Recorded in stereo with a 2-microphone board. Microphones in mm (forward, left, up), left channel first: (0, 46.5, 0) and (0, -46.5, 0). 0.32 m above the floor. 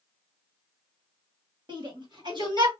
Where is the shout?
55° right (ahead or behind), 2 m; by 2.7 s 50° right (ahead or behind), 2.5 m.